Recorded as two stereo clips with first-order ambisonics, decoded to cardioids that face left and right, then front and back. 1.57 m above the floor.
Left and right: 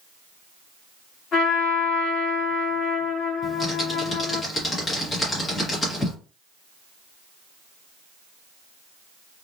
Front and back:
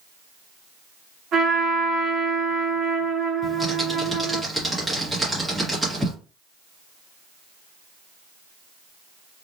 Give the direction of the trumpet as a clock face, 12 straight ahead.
8 o'clock.